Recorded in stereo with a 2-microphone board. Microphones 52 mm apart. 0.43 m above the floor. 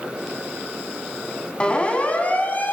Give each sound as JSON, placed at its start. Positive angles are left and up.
{"t": 1.6, "sound": "a siren", "side_deg": 20, "distance_m": 4.0}